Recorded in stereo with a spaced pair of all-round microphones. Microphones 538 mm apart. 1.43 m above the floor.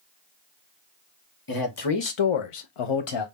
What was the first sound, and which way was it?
A man speaking, 40° left (ahead or behind).